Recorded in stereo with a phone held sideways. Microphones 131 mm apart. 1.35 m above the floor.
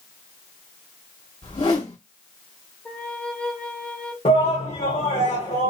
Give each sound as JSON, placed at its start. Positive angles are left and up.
{"t": 1.4, "sound": "a whoosh", "side_deg": 50, "distance_m": 1.8}
{"t": 2.9, "sound": "a flute", "side_deg": 10, "distance_m": 0.6}
{"t": 4.2, "sound": "a shout", "side_deg": 60, "distance_m": 1.1}